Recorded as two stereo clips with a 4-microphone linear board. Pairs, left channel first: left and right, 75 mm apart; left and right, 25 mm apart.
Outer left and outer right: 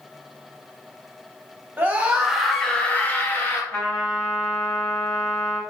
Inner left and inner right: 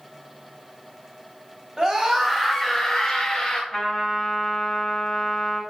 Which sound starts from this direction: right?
A scream, at 1.8 s.